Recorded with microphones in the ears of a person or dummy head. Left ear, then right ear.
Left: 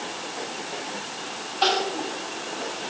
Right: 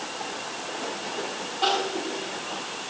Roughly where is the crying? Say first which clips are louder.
Left 2 dB; left.